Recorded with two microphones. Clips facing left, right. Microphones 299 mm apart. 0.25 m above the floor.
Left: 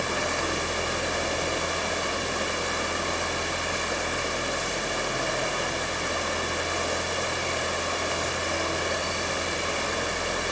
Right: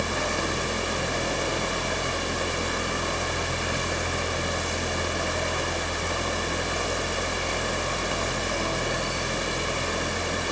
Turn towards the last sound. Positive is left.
No sound to turn to.